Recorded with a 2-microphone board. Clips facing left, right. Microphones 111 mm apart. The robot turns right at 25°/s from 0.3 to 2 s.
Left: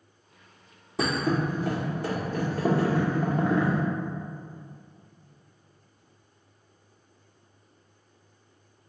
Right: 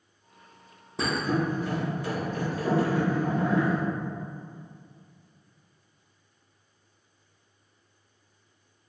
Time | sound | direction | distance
1.0 | a thud | 75° left (ahead or behind) | 0.6 m